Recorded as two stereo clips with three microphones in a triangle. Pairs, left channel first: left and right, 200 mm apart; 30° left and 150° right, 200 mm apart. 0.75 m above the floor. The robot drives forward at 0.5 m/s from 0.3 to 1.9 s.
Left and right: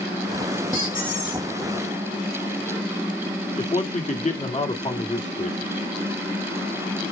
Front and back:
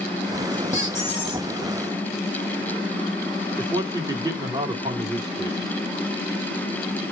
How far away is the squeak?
About 2.5 m.